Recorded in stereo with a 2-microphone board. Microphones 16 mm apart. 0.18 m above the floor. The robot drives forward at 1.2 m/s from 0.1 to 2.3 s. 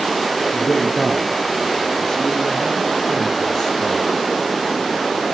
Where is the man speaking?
45° left (ahead or behind), 4 m; by 4.0 s 30° left (ahead or behind), 5.5 m.